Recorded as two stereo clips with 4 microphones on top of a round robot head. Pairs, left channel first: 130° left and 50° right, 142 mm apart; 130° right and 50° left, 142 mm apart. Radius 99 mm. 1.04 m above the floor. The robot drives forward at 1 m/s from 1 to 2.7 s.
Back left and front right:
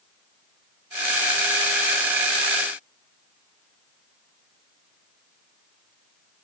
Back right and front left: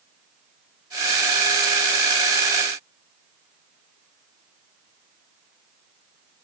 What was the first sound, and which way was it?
Only background noise.